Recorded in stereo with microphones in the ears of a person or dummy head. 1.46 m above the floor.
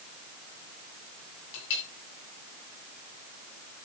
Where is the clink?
75° left (ahead or behind), 8 m.